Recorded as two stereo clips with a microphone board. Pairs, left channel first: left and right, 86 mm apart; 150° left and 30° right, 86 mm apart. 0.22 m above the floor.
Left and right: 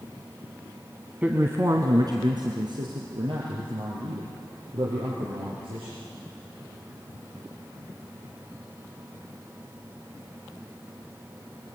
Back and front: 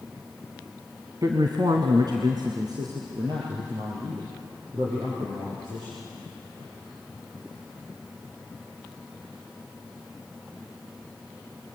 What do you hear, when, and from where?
1.2 s a man speaking: 25° right, 1.5 m; by 5.9 s 80° right, 8 m